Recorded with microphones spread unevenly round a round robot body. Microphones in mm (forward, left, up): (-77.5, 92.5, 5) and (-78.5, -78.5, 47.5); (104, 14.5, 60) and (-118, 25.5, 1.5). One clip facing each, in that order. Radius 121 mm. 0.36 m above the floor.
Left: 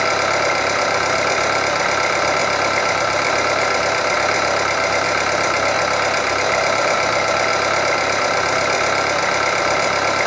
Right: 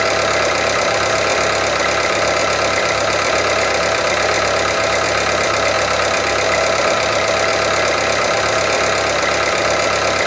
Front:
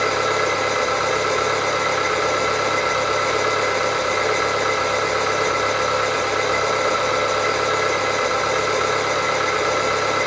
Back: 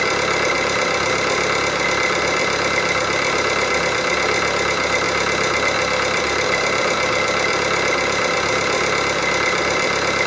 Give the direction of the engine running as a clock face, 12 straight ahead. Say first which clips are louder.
Right 3 dB, even; 5 o'clock.